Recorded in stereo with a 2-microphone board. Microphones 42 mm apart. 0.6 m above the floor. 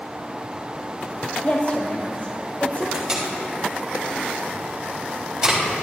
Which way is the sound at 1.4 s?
55° left (ahead or behind).